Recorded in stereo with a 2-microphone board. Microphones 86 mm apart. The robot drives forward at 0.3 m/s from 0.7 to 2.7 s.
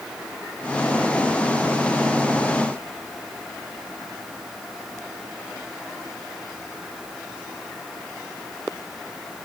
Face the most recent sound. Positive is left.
No sound to turn to.